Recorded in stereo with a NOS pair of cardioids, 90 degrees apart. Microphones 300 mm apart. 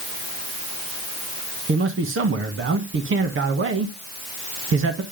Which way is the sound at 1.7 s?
45° right.